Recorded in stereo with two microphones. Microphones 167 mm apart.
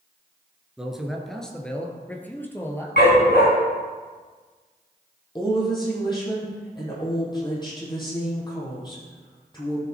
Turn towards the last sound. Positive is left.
turn(degrees=25)  # may be behind; listen again after turning